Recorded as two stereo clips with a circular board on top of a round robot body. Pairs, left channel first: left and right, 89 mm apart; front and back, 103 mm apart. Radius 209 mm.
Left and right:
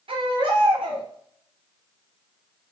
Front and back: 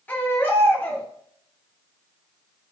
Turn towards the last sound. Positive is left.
turn(degrees=-75)